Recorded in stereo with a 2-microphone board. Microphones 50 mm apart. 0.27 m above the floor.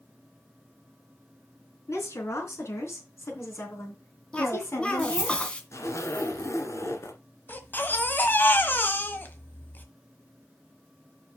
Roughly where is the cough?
Left.